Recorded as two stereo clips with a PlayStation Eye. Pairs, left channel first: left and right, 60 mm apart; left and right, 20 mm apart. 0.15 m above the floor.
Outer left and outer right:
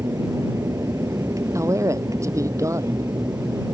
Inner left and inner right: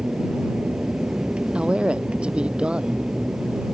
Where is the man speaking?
60° right (ahead or behind).